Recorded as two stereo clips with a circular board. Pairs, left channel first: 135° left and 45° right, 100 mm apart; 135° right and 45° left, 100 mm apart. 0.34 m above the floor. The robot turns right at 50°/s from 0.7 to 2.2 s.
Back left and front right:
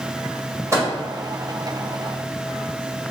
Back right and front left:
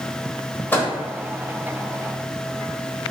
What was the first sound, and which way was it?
A microwave, 75° right.